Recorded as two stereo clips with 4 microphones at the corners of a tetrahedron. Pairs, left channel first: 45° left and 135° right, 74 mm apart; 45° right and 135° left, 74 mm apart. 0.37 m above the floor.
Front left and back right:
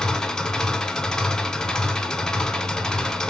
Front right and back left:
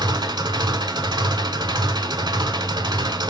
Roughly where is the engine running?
Behind left.